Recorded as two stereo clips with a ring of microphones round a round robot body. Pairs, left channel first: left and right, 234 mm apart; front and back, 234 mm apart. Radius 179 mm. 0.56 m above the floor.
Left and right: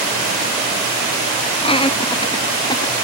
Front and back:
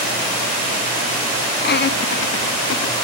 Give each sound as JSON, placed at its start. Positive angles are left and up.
{"t": 1.6, "sound": "laughter", "azimuth_deg": 30, "distance_m": 0.9}